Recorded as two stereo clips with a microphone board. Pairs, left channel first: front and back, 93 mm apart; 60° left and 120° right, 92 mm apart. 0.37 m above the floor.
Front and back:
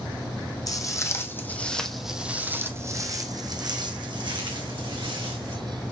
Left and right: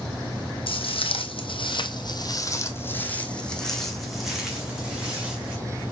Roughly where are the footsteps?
Ahead left.